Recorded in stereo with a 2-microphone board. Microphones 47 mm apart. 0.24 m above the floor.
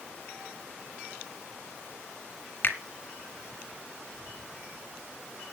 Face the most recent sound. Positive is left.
turn(degrees=50)  # may be behind; listen again after turning